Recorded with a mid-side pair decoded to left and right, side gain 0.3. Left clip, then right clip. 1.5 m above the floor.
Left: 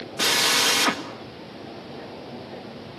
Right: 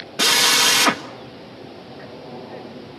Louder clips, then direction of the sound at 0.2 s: Right 5 dB; 55° right.